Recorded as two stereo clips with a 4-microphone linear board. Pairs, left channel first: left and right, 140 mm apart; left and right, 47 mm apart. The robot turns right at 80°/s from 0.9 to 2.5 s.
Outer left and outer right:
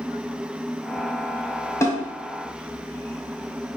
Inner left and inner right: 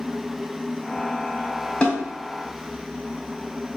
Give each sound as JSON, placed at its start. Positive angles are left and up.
{"t": 1.8, "sound": "a snare drum", "side_deg": 20, "distance_m": 1.7}